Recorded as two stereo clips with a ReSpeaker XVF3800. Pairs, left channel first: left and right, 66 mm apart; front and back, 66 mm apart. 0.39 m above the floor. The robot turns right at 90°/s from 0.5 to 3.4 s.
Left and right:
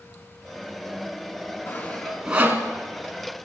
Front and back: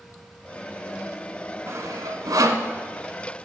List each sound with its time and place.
1.7 s sawing: 135° left, 0.9 m; by 2.6 s 135° right, 0.9 m